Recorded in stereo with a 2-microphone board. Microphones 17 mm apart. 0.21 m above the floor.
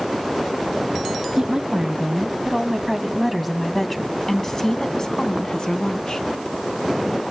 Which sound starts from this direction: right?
A woman speaking, at 1.4 s.